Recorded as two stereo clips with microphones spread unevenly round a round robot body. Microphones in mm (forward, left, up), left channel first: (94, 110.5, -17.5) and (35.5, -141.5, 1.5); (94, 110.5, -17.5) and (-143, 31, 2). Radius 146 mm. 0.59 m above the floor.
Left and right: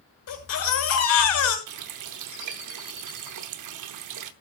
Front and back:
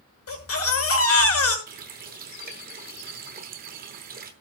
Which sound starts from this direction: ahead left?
A baby crying, at 0.3 s.